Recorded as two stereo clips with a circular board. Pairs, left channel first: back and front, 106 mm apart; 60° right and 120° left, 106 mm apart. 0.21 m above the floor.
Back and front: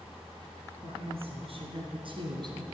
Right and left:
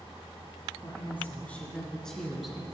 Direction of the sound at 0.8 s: 10° left.